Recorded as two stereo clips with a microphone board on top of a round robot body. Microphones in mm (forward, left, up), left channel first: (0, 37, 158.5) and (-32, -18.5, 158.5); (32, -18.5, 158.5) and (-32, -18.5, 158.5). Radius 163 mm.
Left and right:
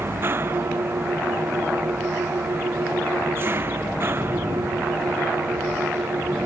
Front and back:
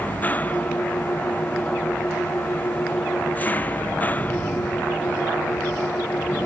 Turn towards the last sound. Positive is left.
turn(degrees=-65)